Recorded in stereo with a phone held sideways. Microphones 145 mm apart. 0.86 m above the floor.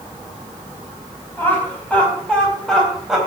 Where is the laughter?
15° left (ahead or behind), 4.5 m; by 3.2 s 5° right (ahead or behind), 4 m.